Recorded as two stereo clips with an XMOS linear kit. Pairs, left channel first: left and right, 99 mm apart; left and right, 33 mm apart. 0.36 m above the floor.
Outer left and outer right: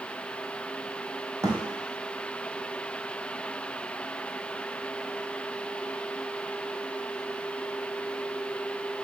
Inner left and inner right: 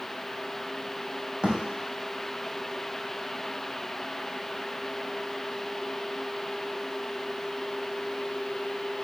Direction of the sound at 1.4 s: 30° right (ahead or behind).